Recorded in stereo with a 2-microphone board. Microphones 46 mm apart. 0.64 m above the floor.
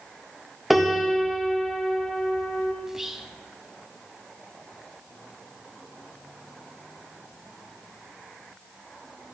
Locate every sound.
0.7 s a piano: 5° right (ahead or behind), 0.9 m
2.8 s whispering: 10° right (ahead or behind), 0.6 m